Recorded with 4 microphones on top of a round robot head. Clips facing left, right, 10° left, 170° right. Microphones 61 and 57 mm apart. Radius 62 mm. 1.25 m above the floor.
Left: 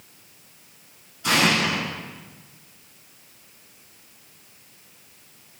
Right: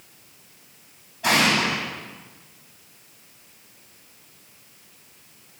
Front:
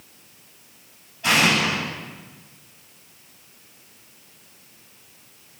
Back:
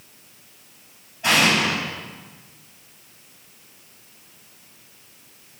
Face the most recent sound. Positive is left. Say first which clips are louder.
# right 1 dB, back 1 dB
turn(degrees=-105)